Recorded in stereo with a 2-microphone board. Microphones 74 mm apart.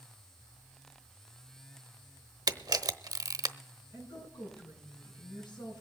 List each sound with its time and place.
2.5 s a camera shutter: 55° right (ahead or behind), 0.7 m
3.9 s a woman speaking: 80° left, 7.5 m